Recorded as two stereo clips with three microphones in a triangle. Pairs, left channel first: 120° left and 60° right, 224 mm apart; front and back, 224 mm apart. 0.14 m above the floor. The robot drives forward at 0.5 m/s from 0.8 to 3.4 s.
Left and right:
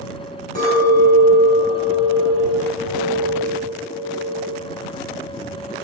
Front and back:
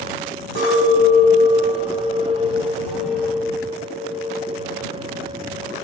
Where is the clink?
65° left, 2 m; by 4.6 s 105° left, 2.0 m.